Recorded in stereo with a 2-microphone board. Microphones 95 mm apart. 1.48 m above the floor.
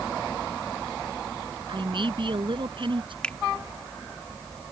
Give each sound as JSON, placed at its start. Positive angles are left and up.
{"t": 1.7, "sound": "a man speaking", "side_deg": -55}
{"t": 3.2, "sound": "a finger snap", "side_deg": 10}